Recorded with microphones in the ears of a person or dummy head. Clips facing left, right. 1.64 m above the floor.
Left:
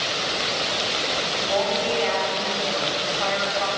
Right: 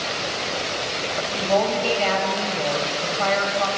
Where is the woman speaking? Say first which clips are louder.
Right 4 dB; 60° right (ahead or behind), 7 m.